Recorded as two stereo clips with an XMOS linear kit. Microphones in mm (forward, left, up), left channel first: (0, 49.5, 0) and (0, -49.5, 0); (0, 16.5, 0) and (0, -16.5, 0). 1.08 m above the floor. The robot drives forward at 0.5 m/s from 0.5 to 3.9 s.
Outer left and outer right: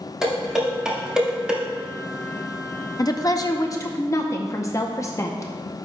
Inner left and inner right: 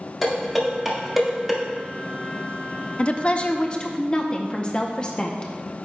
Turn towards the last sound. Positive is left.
turn(degrees=30)  # may be behind; listen again after turning